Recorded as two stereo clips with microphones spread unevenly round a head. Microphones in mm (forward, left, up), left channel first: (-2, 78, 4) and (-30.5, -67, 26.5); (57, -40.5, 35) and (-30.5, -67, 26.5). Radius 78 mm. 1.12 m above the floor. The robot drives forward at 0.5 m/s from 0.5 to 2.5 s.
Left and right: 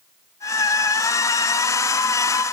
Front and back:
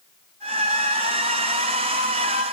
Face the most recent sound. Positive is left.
No sound to turn to.